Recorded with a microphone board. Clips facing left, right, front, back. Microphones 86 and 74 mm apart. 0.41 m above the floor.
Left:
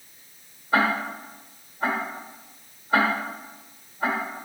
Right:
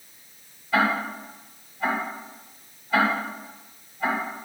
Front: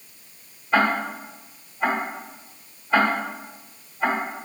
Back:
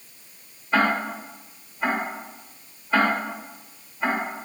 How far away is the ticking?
About 1.3 m.